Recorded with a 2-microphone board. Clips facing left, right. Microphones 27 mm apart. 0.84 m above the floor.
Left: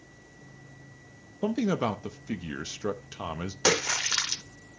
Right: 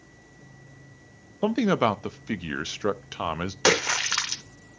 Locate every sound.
1.4 s a man speaking: 40° right (ahead or behind), 0.6 m
3.6 s a splash: 25° right (ahead or behind), 0.9 m